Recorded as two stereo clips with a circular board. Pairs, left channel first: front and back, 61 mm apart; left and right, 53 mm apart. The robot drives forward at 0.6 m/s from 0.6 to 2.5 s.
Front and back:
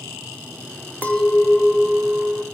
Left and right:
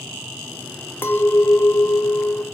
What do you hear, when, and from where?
1.0 s a clink: 60° left, 1.0 m; by 2.4 s 125° left, 1.0 m